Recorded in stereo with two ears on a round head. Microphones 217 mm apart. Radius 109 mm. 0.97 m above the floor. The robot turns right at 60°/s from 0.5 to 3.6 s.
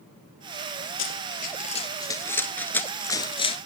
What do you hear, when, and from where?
1.0 s running footsteps: 55° left (ahead or behind), 1.6 m; by 3.6 s 25° left (ahead or behind), 1.0 m